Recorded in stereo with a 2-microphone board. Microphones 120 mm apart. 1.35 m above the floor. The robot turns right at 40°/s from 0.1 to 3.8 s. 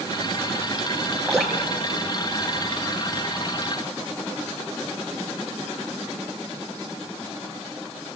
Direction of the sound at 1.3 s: 5° left (ahead or behind).